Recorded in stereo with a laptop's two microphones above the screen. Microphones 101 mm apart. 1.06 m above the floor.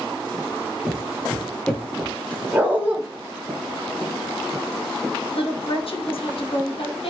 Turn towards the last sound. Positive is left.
turn(degrees=70)  # may be behind; listen again after turning